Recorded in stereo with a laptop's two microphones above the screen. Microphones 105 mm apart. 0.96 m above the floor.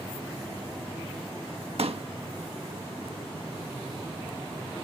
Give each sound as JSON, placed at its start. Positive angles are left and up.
{"t": 1.8, "sound": "a pop", "side_deg": -65}